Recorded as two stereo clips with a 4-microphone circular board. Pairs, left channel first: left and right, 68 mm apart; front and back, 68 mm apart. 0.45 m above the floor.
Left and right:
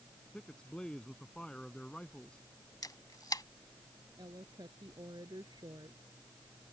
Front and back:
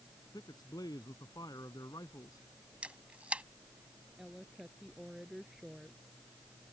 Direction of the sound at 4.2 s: 95° right.